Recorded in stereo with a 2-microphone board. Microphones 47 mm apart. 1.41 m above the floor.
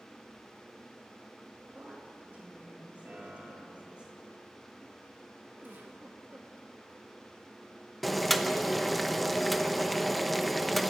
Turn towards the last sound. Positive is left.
turn(degrees=0)  # may be behind; listen again after turning